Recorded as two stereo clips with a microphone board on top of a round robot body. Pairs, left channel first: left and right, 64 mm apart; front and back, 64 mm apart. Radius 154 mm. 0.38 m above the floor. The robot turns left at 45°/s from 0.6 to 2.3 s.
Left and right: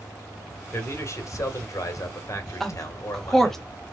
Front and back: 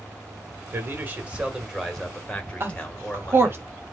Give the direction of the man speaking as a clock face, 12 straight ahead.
7 o'clock.